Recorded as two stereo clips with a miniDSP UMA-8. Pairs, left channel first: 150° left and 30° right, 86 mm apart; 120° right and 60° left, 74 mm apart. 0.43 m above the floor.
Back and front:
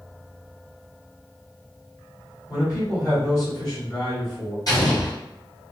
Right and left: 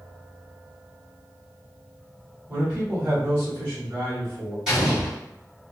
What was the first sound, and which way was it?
A man speaking, 110° left.